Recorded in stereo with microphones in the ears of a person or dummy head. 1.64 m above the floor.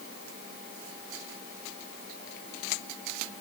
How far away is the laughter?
No laughter in this recording.